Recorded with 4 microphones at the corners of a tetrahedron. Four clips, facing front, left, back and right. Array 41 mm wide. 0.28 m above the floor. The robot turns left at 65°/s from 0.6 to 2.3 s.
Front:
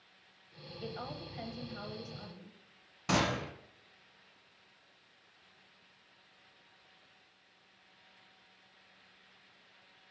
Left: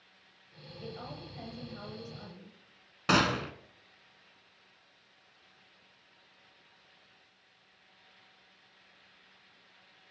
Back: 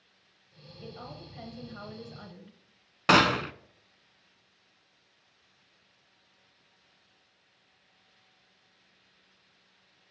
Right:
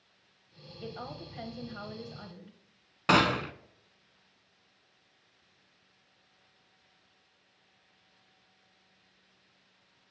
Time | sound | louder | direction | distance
0.8 | a woman speaking | right 2 dB, front 2 dB | 45° right | 1.0 m
3.1 | a gunshot | right 2 dB, back 10 dB | 165° right | 0.6 m